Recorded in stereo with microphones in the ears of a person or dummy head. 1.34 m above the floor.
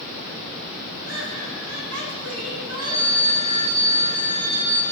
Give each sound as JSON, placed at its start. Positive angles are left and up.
{"t": 1.0, "sound": "laughter", "side_deg": -75, "distance_m": 4.5}
{"t": 2.8, "sound": "a phone ringing", "side_deg": -20, "distance_m": 5.0}